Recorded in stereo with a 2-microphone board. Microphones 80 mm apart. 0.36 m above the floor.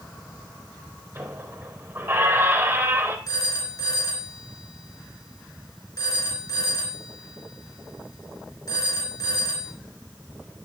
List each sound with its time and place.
1.1 s a squeak: 30° right (ahead or behind), 3 m
3.3 s a phone ringing: 55° left (ahead or behind), 3.5 m